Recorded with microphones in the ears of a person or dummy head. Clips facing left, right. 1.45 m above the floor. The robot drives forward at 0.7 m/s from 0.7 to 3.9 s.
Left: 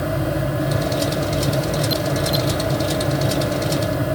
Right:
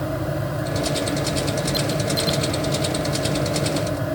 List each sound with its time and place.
Only background noise.